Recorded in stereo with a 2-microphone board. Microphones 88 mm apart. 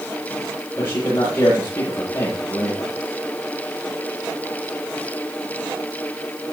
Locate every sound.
0.8 s a man speaking: 30° left (ahead or behind), 9 m